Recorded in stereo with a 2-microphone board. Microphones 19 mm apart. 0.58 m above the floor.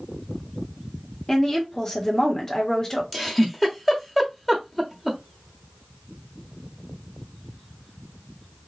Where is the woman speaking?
30° left (ahead or behind), 1.5 m.